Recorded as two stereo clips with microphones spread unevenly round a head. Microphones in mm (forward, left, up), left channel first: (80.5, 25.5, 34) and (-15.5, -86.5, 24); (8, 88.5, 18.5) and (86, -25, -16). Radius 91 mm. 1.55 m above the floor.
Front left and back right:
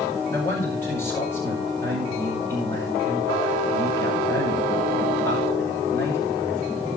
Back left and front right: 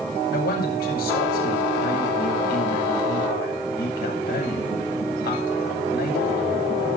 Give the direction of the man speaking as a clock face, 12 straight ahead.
8 o'clock.